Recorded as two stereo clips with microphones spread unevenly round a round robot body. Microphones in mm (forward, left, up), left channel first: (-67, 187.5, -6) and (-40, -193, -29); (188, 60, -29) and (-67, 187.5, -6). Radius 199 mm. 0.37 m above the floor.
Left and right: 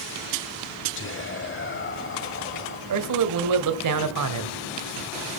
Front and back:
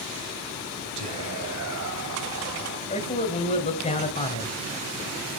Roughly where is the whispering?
Behind left.